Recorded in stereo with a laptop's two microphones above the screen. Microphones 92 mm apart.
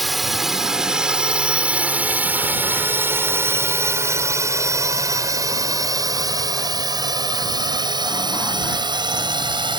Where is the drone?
Centre (ahead or behind); by 9.8 s 50° right (ahead or behind).